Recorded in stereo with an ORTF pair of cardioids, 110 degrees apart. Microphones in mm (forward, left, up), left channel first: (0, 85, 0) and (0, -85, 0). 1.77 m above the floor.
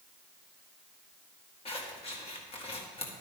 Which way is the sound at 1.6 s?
35° left.